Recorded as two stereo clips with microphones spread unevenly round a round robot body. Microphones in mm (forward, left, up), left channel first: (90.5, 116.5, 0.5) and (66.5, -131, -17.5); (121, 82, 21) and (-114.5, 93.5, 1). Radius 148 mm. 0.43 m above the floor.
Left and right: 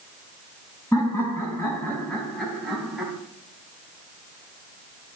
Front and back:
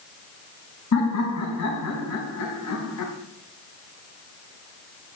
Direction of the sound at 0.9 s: 5° left.